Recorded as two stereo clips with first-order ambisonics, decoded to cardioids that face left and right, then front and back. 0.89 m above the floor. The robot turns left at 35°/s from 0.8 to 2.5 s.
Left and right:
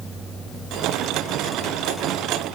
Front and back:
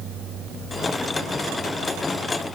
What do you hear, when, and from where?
Only background noise.